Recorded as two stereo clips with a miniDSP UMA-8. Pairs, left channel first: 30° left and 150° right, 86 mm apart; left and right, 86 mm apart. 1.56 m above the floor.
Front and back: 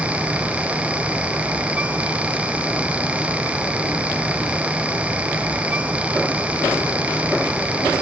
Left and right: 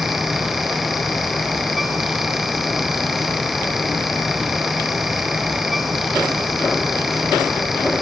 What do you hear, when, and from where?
Only background noise.